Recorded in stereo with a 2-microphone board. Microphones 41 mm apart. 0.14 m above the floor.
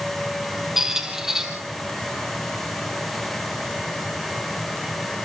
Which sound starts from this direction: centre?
A squeak, at 0.8 s.